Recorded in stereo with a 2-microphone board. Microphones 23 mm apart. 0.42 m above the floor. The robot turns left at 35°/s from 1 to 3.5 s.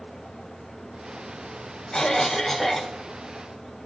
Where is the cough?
30° left, 1.8 m; by 2.9 s 5° right, 1.8 m.